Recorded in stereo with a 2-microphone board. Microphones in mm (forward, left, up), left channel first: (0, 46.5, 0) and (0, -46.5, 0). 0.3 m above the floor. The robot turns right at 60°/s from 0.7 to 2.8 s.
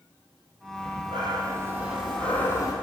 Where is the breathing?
80° right, 2.5 m; by 2.7 s 40° left, 2.5 m.